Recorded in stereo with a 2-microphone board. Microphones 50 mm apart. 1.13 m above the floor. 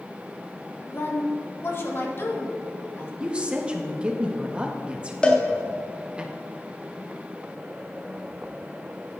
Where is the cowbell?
20° left (ahead or behind), 1.6 m.